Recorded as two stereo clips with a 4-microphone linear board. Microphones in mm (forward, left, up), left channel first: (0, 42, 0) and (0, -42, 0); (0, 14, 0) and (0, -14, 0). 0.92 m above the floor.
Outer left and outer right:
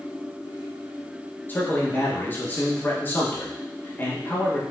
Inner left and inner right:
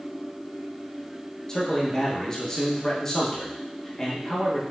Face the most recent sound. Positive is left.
turn(degrees=25)  # may be behind; listen again after turning